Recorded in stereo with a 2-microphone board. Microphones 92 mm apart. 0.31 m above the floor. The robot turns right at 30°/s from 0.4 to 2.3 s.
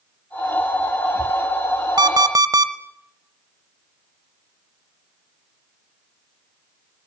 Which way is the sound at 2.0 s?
50° right (ahead or behind).